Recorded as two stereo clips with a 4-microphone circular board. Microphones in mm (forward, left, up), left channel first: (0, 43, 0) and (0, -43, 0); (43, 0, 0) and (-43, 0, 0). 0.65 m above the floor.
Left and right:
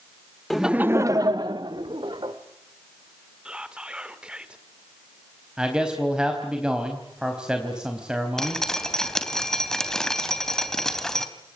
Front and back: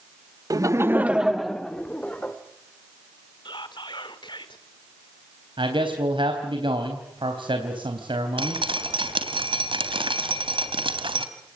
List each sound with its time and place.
0.5 s laughter: straight behind, 0.9 m; by 2.4 s 75° right, 2 m
3.5 s whispering: 10° right, 2.5 m
5.6 s a man speaking: 170° right, 3.5 m
8.4 s dripping: 175° left, 3 m